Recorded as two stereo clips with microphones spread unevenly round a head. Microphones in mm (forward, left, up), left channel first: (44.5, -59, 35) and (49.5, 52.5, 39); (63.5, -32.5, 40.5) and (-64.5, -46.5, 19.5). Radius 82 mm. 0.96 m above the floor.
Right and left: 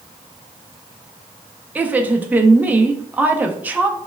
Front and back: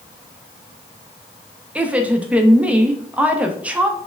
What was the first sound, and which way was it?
A woman speaking, 150° left.